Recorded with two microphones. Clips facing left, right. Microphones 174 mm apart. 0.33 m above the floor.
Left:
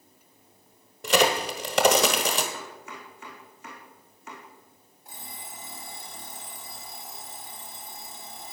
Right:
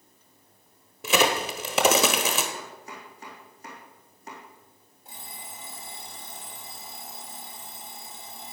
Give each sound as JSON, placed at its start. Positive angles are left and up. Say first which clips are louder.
{"t": 1.0, "sound": "a crack", "louder": "left 1 dB", "side_deg": -5, "distance_m": 1.3}
{"t": 2.5, "sound": "chopping", "louder": "even", "side_deg": -40, "distance_m": 3.5}
{"t": 5.0, "sound": "an alarm clock", "louder": "even", "side_deg": -25, "distance_m": 4.5}